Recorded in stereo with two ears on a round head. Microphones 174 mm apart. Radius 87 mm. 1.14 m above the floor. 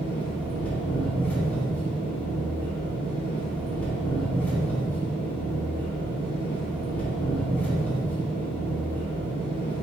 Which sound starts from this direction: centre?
An engine running, at 0.0 s.